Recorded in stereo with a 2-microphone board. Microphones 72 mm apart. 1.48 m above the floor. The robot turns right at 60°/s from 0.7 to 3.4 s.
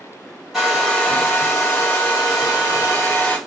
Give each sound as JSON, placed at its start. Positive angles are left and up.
{"t": 0.5, "sound": "a hair dryer", "azimuth_deg": -5, "distance_m": 1.6}